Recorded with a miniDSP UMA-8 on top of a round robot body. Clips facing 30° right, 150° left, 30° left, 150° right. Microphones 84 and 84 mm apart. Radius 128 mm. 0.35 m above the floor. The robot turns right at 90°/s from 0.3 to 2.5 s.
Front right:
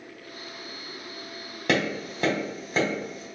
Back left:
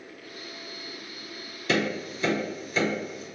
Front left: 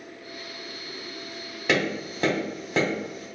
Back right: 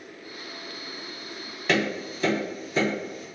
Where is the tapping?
55° right, 1.5 m; by 3.2 s 20° left, 1.5 m.